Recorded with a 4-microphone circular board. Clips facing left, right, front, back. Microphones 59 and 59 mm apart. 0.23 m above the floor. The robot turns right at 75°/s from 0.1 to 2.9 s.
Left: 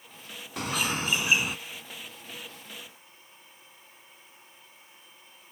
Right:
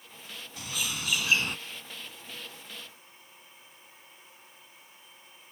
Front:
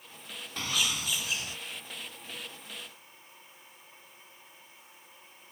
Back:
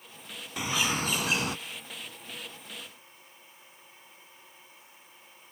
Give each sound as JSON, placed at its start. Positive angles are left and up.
{"t": 0.6, "sound": "a bird", "azimuth_deg": 100}